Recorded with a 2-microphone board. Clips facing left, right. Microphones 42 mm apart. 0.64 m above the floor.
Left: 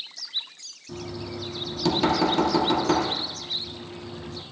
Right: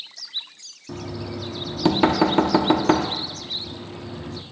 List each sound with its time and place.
0.9 s knocking: 30° right (ahead or behind), 0.8 m